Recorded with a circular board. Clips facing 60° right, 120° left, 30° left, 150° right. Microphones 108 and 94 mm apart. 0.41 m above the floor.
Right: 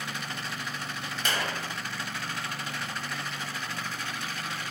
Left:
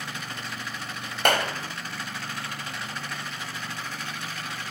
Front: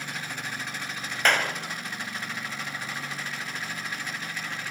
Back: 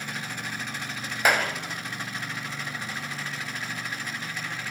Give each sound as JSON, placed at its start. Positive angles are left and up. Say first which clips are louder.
{"t": 1.2, "sound": "a clap", "louder": "left 8 dB, back 1 dB", "azimuth_deg": 130, "distance_m": 2.5}